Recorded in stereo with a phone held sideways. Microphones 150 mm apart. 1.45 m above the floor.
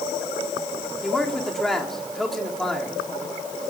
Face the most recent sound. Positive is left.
turn(degrees=0)  # may be behind; listen again after turning